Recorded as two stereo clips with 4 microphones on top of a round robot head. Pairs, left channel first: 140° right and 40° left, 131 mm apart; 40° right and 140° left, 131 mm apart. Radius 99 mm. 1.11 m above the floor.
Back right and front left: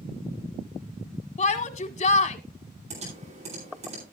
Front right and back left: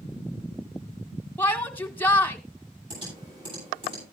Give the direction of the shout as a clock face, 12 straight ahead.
4 o'clock.